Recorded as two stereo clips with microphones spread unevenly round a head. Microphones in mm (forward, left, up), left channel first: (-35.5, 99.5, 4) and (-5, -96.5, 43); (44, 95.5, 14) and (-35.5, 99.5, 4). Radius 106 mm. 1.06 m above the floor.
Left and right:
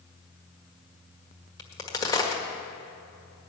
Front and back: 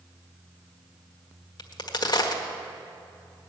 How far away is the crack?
About 1.7 m.